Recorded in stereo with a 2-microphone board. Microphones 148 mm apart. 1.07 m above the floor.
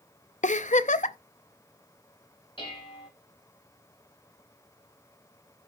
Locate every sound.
0.4 s a giggle: 50° left (ahead or behind), 0.5 m
2.6 s dishes clattering: 35° left (ahead or behind), 4 m